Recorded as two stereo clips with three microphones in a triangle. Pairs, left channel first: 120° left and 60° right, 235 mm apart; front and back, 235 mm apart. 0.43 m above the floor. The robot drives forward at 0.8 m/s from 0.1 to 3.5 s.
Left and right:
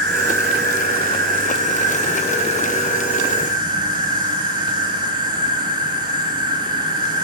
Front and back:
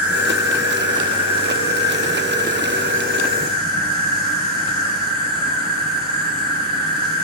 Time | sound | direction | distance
0.0 | an insect | 95° right | 3.5 m